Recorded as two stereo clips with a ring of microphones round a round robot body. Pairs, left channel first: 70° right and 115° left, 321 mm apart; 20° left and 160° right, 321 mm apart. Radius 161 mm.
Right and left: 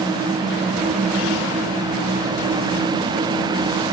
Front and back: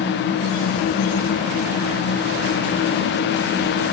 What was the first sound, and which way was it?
Only background noise.